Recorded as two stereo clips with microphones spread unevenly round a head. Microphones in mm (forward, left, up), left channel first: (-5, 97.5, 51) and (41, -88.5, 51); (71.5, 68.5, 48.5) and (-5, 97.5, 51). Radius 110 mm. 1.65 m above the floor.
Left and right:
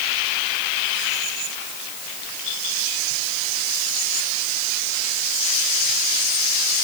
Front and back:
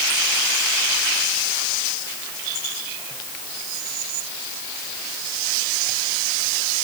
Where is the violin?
I don't hear a violin.